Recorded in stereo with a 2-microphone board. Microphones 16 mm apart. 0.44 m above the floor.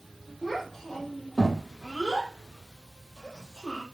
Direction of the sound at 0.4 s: 35° left (ahead or behind).